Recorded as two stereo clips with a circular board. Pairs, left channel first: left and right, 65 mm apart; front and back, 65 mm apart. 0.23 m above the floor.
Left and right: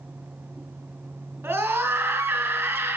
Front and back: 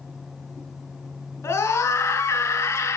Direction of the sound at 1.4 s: 30° right.